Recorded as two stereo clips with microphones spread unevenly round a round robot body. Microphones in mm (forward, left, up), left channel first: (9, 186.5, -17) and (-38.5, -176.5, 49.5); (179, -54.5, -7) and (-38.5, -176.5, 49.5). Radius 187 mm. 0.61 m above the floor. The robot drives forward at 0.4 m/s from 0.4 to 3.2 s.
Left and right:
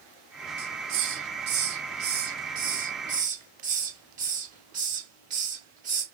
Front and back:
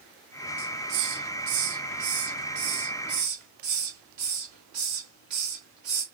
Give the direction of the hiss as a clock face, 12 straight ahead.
5 o'clock.